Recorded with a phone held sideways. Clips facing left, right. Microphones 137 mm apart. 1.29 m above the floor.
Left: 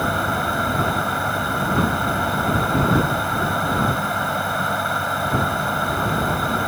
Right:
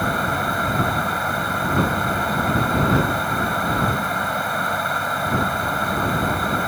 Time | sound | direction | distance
0.0 | a fan | centre (ahead or behind) | ?